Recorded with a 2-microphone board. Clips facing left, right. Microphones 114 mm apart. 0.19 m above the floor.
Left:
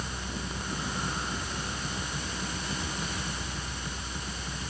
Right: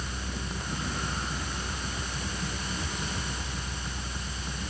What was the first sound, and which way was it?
Only background noise.